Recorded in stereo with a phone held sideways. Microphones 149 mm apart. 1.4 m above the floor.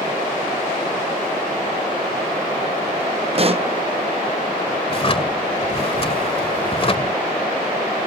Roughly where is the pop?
Right.